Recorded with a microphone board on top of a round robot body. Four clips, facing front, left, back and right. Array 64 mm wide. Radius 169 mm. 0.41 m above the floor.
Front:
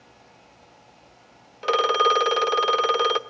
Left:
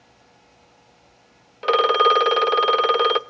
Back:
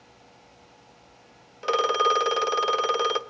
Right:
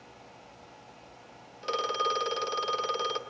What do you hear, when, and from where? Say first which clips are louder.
1.6 s a phone ringing: left 13 dB, front 2 dB; 80° left, 0.8 m